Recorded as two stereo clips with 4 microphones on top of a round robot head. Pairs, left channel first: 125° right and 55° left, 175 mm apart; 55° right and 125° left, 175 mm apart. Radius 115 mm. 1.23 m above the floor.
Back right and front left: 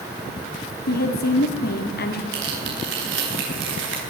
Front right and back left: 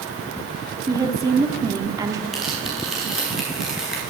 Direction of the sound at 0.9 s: 160° right.